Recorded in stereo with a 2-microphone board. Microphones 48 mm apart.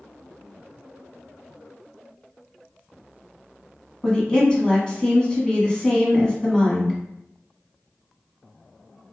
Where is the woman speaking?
15° left (ahead or behind), 1.2 m.